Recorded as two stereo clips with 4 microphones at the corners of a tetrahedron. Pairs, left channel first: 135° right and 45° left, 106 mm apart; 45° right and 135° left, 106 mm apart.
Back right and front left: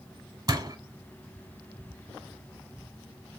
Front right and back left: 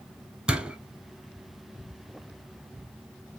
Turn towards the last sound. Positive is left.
turn(degrees=55)